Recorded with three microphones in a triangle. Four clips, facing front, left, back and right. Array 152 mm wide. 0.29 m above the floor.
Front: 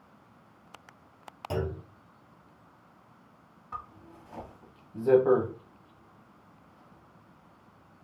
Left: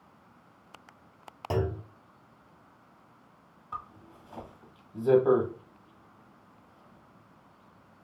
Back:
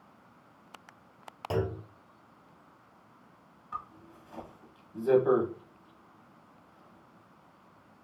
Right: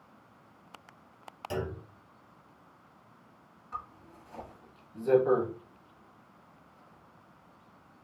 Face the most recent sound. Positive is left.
turn(degrees=40)